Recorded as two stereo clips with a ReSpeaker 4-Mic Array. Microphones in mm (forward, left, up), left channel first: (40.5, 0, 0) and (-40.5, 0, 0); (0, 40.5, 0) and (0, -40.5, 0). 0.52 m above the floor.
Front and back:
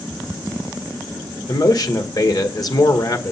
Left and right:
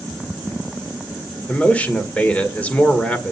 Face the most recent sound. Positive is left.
turn(degrees=20)